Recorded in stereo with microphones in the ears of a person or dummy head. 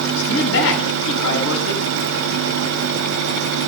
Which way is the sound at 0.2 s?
70° left (ahead or behind).